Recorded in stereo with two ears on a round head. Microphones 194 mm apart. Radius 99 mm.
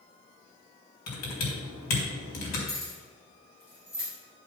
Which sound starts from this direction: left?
Typing on a keyboard, at 1.1 s.